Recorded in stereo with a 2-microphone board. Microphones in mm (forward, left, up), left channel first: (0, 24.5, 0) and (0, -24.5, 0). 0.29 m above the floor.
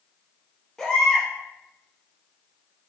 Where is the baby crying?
10° left (ahead or behind), 2.5 m.